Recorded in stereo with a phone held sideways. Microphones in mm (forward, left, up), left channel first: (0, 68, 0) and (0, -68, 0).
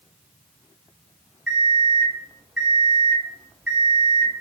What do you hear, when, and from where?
1.5 s an alarm clock: 5° right (ahead or behind), 1.0 m